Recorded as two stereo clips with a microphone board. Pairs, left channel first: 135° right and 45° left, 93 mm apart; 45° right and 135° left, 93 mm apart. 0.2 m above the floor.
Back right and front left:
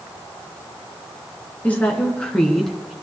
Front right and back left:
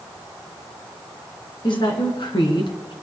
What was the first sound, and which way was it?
A woman speaking, 65° right.